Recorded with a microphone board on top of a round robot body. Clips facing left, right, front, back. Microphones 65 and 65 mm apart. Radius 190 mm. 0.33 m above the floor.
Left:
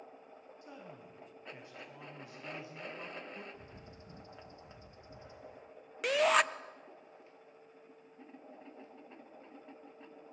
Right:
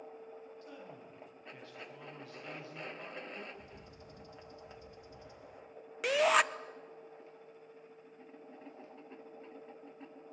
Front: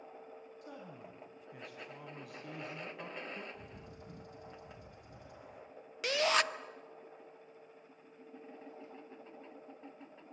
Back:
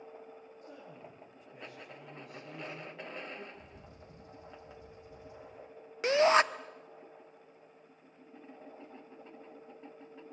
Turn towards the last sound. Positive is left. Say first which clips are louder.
# even, back 7 dB
turn(degrees=180)